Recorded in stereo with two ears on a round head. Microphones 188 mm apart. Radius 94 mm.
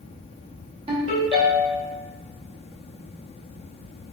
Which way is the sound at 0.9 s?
25° right (ahead or behind).